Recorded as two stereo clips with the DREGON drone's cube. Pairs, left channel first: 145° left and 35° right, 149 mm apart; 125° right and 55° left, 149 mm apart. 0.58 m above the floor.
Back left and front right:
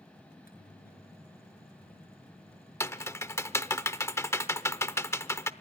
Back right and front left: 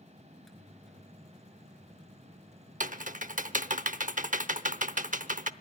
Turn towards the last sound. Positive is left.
turn(degrees=75)